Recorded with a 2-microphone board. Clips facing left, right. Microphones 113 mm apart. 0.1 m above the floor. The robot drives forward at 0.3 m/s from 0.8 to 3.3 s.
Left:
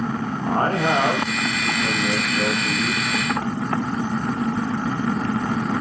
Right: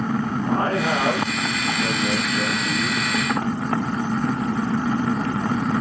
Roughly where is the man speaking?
Left.